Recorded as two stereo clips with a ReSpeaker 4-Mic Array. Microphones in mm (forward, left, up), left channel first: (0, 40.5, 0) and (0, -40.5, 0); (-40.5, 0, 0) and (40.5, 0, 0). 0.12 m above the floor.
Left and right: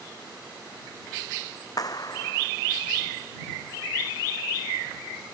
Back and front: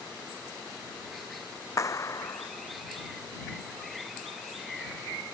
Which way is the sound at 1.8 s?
130° left.